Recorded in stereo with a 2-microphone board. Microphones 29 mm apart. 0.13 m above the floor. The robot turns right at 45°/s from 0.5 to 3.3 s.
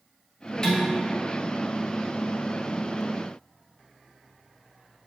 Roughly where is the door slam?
No door slam in this recording.